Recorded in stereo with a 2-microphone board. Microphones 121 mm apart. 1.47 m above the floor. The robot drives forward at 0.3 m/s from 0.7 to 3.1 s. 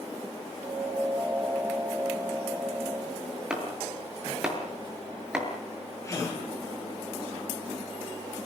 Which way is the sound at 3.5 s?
10° right (ahead or behind).